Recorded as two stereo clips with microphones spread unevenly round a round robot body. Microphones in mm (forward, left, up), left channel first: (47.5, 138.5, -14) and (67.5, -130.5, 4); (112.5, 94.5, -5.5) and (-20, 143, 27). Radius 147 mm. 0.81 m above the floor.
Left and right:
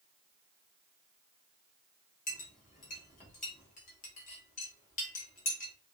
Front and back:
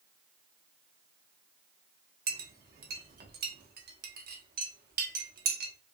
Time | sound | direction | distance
2.3 | a clink | 160° left | 1.1 m